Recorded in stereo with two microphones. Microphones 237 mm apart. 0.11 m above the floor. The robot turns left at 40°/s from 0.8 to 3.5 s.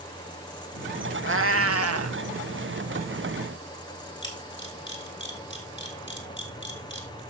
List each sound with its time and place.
1.2 s a cat meowing: 55° right, 0.5 m; by 2.2 s 95° right, 0.5 m
4.2 s a camera shutter: 50° left (ahead or behind), 2.5 m